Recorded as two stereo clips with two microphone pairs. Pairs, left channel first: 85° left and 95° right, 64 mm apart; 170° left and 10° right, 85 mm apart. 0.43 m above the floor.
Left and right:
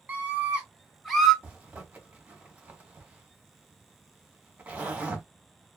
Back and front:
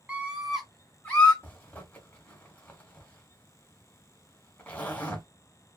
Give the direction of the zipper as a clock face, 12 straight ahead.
5 o'clock.